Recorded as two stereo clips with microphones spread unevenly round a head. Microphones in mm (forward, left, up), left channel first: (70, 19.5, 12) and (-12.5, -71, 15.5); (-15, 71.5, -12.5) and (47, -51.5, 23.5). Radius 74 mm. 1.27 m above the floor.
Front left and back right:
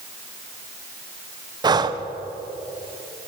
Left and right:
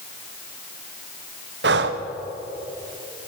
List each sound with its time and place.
1.6 s breathing: 80° right, 0.7 m